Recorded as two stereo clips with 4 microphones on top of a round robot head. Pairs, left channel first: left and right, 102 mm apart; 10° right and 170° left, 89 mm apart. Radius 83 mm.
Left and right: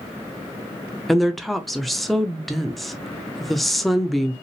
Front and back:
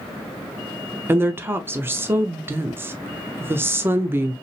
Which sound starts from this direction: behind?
A woman speaking, at 1.1 s.